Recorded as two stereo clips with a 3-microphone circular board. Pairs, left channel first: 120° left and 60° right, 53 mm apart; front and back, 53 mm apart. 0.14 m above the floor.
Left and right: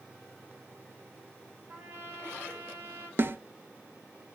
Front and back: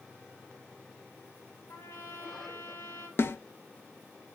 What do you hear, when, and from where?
1.7 s a trumpet: 15° right, 4 m
3.2 s a snare drum: 30° right, 0.7 m